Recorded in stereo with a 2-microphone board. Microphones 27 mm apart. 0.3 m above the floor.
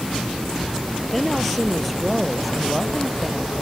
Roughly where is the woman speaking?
Centre.